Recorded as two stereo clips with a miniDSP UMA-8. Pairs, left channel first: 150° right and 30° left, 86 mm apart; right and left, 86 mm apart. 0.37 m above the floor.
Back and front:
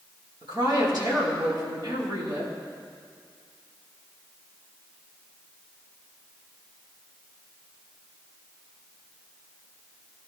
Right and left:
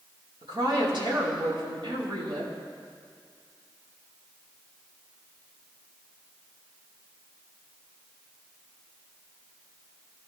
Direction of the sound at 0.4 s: 65° left.